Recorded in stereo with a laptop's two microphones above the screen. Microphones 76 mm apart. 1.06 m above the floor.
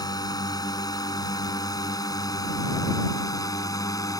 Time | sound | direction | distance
0.0 | a drone | 60° left (ahead or behind) | ?